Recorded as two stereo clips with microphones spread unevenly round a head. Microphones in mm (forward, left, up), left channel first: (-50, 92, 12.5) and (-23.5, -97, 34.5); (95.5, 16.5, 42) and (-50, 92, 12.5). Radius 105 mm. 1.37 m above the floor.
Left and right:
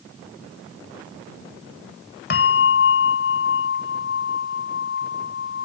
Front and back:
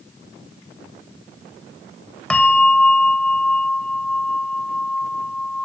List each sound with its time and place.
2.3 s a bell: 50° left